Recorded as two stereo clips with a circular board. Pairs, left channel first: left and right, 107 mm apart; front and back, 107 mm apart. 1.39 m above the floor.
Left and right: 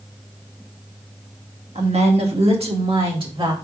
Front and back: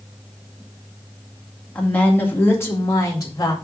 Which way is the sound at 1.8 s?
80° right.